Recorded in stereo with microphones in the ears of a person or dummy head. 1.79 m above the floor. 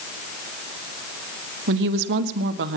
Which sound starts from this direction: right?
A woman speaking, at 1.7 s.